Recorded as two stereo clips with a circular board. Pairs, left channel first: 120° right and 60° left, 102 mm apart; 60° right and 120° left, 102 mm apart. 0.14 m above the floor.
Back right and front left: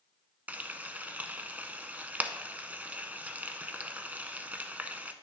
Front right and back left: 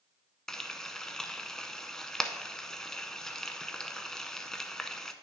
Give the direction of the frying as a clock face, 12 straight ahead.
11 o'clock.